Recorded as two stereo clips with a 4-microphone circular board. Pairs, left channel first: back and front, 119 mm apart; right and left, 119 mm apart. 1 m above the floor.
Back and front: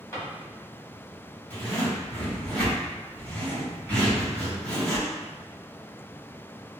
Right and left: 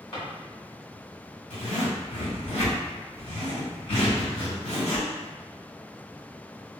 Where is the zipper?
105° right, 2.0 m.